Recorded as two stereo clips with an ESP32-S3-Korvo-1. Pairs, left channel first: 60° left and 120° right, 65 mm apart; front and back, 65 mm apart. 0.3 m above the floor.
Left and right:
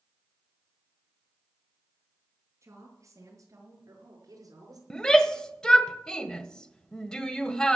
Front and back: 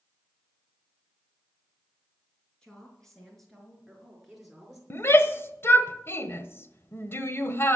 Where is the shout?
10° right, 1.1 m.